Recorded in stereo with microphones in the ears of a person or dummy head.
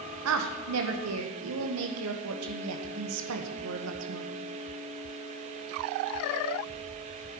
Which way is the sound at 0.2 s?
80° right.